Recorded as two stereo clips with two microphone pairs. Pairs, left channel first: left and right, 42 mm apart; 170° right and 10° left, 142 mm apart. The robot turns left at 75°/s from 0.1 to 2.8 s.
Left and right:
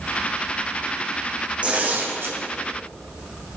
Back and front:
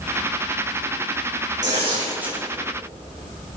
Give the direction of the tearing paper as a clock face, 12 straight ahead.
1 o'clock.